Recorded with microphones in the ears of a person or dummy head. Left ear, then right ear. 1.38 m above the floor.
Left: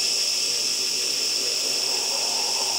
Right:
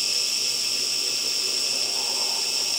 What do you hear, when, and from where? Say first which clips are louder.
0.0 s an insect: left 1 dB; 10° right (ahead or behind), 3 m